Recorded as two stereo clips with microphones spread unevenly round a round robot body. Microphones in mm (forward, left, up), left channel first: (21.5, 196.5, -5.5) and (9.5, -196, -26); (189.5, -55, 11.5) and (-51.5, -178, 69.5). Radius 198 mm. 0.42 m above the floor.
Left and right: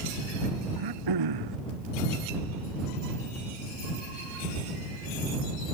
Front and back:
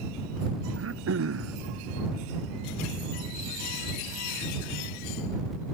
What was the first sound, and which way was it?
Throat clearing, 125° right.